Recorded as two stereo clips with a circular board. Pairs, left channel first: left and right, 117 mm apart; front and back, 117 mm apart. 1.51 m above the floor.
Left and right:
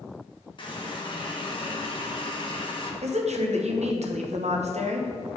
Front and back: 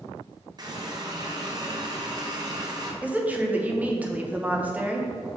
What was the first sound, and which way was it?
A running tap, 130° left.